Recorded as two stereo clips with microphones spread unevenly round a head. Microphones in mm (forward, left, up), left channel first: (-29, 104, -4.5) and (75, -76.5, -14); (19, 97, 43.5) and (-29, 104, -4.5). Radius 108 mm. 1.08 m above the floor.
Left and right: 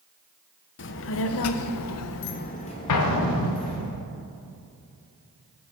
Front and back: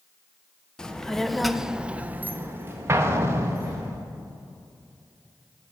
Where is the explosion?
125° left, 0.9 m.